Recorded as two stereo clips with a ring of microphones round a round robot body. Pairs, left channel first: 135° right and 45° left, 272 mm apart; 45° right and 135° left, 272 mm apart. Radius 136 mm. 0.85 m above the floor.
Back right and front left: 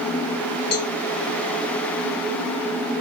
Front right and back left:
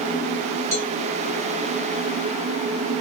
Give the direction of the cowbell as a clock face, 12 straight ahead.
4 o'clock.